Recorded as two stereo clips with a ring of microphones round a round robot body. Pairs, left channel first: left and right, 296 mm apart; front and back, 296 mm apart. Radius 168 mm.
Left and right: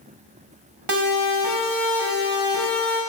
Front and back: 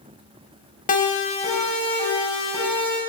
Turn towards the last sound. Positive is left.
turn(degrees=-75)